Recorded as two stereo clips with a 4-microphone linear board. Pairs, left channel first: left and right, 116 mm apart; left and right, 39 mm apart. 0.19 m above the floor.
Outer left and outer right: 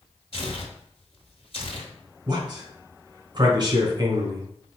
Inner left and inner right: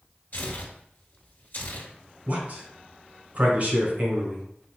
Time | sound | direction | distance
0.3 | tearing paper | 55° left (ahead or behind) | 1.4 m
2.3 | a man speaking | 40° right (ahead or behind) | 1.9 m